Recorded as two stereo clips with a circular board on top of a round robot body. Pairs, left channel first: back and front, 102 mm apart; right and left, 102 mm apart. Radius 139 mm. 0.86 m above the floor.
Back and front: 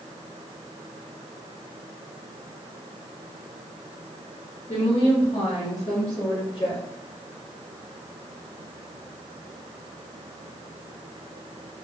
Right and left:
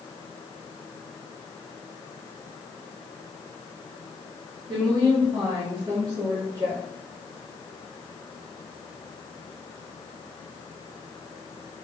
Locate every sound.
4.7 s a woman speaking: 135° left, 1.8 m; by 6.8 s 140° left, 3 m